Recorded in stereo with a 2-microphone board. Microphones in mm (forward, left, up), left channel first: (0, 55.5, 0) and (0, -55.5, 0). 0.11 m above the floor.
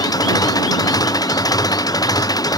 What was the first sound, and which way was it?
An engine running, 35° left (ahead or behind).